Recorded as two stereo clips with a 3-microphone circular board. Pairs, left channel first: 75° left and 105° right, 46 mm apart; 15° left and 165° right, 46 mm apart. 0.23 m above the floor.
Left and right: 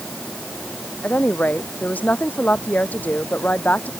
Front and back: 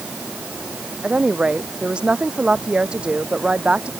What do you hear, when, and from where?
1.0 s a woman speaking: 130° left